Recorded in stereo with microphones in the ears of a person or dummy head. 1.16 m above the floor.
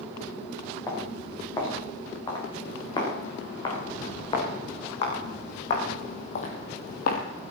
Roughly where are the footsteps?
Left.